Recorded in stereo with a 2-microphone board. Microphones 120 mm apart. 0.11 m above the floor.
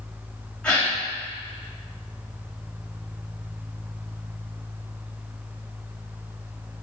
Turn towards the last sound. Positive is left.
turn(degrees=10)  # may be behind; listen again after turning